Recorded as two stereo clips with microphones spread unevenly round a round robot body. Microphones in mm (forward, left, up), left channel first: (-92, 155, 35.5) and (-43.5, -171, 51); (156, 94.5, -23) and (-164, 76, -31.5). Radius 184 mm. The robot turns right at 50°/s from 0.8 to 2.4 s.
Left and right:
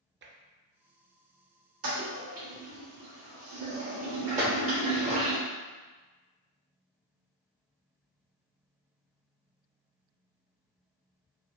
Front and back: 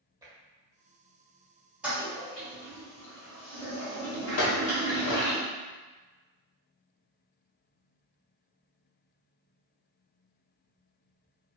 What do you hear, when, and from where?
0.2 s tapping: 110° right, 0.6 m
1.8 s a toilet flushing: 95° right, 1.6 m; by 5.4 s 65° right, 1.6 m
4.4 s a clink: 20° right, 1.0 m